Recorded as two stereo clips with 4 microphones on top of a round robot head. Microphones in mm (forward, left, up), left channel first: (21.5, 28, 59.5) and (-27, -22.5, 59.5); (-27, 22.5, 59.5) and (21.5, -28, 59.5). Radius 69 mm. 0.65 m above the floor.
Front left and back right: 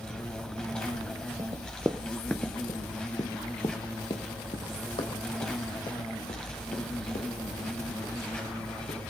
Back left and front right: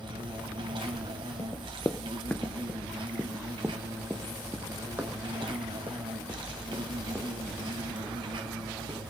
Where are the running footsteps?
170° right, 0.8 m; by 9.0 s 20° left, 4.5 m.